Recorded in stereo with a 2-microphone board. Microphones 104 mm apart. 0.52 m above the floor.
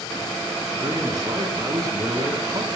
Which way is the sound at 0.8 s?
35° right (ahead or behind).